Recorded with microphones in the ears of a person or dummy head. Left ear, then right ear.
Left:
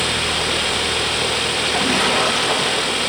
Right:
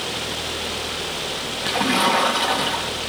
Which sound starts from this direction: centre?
A splash, at 1.6 s.